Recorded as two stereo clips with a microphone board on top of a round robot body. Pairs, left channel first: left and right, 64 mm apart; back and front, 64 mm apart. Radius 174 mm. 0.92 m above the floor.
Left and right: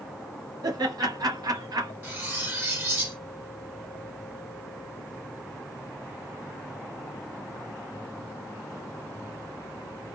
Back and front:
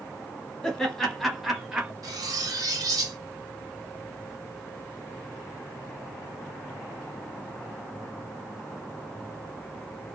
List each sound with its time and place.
0.6 s laughter: 100° right, 1.3 m; by 1.9 s 70° right, 0.7 m
2.0 s cutlery clinking: 30° right, 1.1 m